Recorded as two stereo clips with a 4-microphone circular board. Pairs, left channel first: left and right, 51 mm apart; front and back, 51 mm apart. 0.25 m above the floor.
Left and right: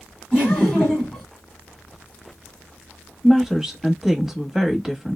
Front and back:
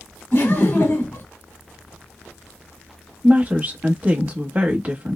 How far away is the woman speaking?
About 1.1 m.